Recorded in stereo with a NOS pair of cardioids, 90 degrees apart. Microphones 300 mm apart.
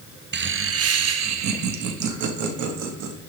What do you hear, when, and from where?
0.3 s laughter: 35° right, 1.1 m; by 3.1 s 80° right, 3 m